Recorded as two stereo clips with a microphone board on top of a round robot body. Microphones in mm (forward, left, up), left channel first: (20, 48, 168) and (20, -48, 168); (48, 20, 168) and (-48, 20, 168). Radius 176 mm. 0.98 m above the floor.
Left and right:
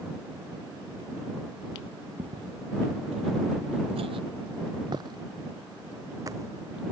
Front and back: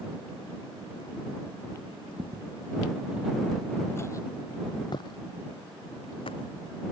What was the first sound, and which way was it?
Footsteps, 135° right.